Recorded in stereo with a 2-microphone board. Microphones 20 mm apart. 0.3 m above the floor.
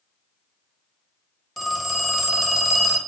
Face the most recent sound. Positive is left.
turn(degrees=-15)  # may be behind; listen again after turning